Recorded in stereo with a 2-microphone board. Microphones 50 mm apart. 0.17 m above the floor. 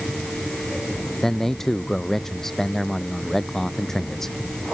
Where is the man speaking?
5° left (ahead or behind).